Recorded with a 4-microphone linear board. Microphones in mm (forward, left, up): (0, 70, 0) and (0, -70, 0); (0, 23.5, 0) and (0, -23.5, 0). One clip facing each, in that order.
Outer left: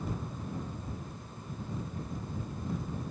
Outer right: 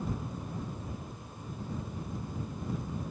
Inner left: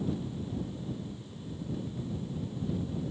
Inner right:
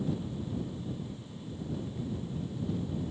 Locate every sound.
Only background noise.